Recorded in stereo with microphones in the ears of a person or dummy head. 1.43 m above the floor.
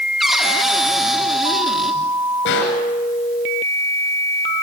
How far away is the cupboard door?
About 3.5 m.